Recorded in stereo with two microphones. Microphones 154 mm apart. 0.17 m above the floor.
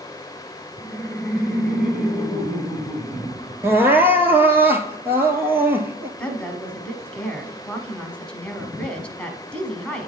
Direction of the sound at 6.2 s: 10° left (ahead or behind).